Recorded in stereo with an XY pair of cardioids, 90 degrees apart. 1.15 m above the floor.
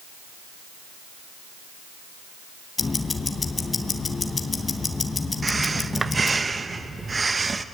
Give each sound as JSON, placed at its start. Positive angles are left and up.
{"t": 2.8, "sound": "ticking", "azimuth_deg": 35, "distance_m": 3.0}
{"t": 5.4, "sound": "breathing", "azimuth_deg": -30, "distance_m": 1.2}